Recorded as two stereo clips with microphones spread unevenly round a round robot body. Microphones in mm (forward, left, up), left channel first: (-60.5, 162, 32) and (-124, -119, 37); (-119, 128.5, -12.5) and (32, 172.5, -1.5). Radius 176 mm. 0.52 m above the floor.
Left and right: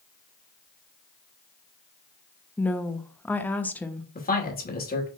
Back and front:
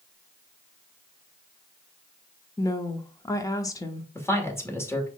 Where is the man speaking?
130° left, 2 m.